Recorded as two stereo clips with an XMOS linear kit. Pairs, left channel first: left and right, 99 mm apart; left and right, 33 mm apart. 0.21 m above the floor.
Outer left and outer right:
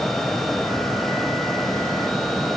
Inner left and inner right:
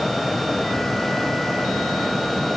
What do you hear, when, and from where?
Only background noise.